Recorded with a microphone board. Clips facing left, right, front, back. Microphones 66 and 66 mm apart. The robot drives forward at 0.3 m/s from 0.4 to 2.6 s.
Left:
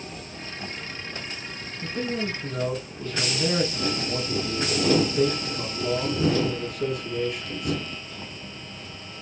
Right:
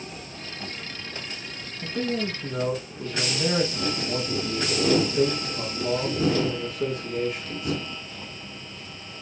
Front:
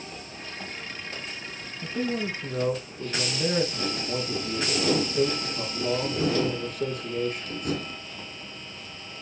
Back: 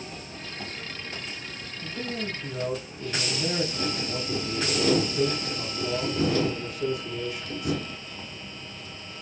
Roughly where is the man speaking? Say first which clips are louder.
Right 1 dB, front 5 dB; ahead right.